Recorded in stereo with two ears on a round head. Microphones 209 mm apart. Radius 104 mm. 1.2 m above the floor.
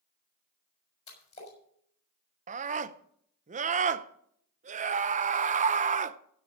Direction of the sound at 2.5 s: 30° right (ahead or behind).